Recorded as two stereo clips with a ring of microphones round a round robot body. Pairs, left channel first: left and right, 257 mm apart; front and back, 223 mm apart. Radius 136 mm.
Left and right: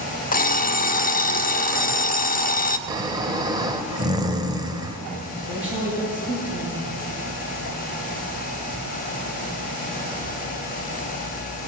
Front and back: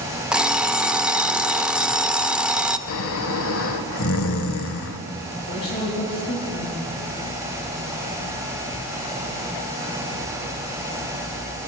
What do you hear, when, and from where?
0.3 s an alarm clock: 95° left, 0.7 m
2.9 s snoring: 15° right, 0.8 m
5.5 s a woman speaking: 5° right, 7.5 m